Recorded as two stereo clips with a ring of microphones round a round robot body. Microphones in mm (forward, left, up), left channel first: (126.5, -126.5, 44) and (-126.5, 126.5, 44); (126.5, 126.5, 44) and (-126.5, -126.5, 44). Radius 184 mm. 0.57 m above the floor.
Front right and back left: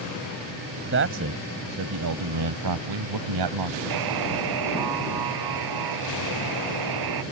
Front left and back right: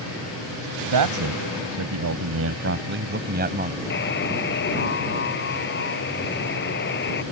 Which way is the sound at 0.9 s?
170° right.